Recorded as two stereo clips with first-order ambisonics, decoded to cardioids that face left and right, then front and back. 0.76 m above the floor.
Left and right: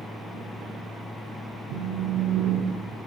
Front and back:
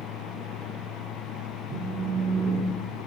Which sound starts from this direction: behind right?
A phone buzzing, at 1.7 s.